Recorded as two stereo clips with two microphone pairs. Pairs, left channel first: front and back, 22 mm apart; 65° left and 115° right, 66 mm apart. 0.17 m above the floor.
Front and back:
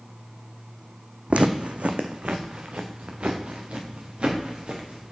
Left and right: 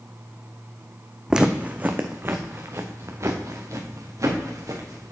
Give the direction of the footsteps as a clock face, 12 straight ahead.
6 o'clock.